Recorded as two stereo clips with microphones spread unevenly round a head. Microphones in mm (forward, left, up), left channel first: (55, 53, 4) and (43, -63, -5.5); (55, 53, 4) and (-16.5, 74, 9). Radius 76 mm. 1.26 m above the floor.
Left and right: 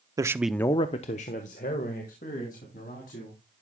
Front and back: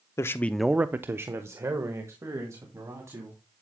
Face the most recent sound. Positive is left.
turn(degrees=115)